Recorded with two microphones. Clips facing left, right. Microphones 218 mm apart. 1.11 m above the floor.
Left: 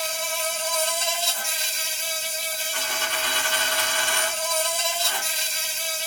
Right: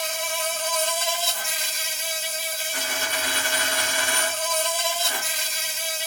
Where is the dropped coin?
10° right (ahead or behind), 2 m.